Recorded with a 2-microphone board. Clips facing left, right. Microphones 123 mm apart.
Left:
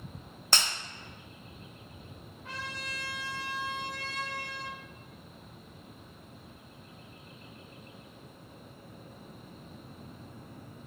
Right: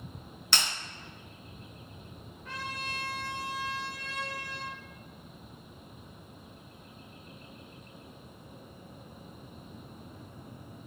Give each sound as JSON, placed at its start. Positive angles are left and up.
{"t": 0.5, "sound": "breaking glass", "side_deg": 45, "distance_m": 1.3}
{"t": 2.4, "sound": "a trumpet", "side_deg": 80, "distance_m": 1.5}